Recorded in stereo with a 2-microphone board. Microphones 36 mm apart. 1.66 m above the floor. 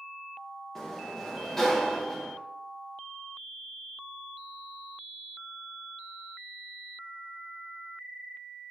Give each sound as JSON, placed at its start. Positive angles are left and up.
{"t": 0.8, "sound": "a sliding door", "side_deg": 10, "distance_m": 1.5}